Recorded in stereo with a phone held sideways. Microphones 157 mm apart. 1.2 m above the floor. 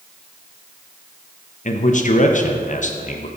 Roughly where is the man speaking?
Left.